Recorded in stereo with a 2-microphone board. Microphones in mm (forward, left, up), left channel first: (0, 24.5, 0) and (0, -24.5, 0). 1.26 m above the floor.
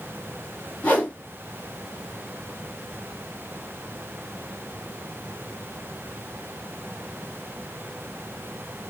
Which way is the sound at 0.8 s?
30° left (ahead or behind).